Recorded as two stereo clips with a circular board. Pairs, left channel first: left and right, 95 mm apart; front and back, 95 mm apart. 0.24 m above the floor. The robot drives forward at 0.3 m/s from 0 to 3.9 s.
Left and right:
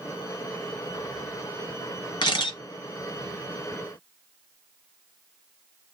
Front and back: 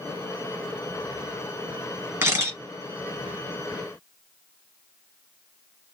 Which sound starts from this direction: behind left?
A camera shutter, at 2.2 s.